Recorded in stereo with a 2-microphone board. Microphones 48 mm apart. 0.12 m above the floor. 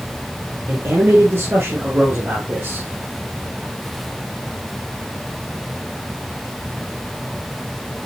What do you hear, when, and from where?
0.7 s a man speaking: 55° right (ahead or behind), 2 m; by 2.9 s 40° right (ahead or behind), 3 m